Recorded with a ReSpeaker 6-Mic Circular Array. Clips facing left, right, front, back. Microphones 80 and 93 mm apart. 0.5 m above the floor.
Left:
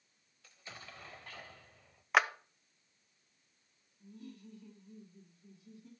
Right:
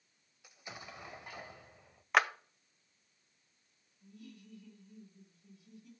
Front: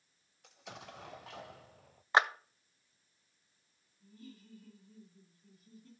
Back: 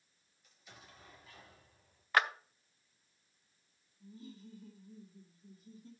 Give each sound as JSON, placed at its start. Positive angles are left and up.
{"t": 0.4, "sound": "an explosion", "azimuth_deg": -15, "distance_m": 0.6}
{"t": 2.1, "sound": "a clap", "azimuth_deg": 0, "distance_m": 0.6}
{"t": 4.0, "sound": "laughter", "azimuth_deg": 130, "distance_m": 1.6}